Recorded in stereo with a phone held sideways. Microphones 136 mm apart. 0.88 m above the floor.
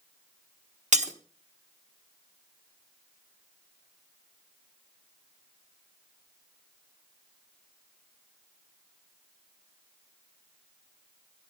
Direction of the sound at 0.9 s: 65° right (ahead or behind).